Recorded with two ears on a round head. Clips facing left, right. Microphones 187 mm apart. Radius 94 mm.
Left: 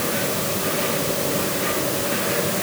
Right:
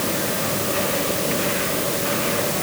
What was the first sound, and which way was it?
Only background noise.